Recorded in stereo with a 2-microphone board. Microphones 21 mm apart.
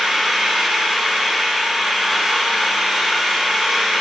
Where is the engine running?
5° right (ahead or behind), 3 m.